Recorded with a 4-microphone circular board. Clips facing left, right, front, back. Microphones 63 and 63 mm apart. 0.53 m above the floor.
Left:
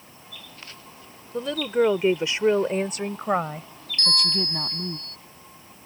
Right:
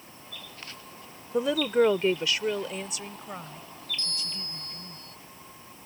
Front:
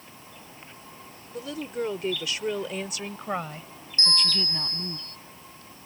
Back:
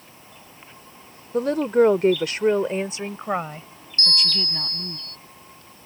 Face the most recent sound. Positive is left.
turn(degrees=65)